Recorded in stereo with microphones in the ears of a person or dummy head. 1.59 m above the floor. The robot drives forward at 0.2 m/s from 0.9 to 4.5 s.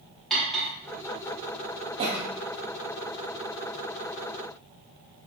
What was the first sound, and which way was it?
Cutlery clinking, 5° left (ahead or behind).